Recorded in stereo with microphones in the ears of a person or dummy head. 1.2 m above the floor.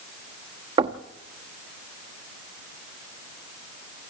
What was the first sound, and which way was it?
Knocking, 35° right (ahead or behind).